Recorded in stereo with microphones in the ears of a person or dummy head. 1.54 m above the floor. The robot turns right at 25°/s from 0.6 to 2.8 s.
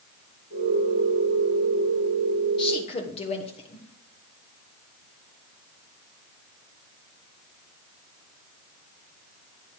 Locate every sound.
2.6 s a woman speaking: 30° left (ahead or behind), 1.3 m; by 3.9 s 35° left (ahead or behind), 1.3 m